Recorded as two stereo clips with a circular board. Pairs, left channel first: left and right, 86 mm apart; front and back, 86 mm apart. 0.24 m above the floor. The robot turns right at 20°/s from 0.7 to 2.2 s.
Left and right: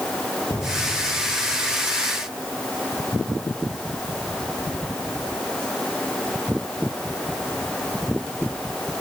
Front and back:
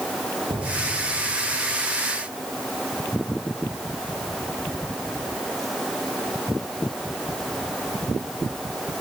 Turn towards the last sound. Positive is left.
turn(degrees=175)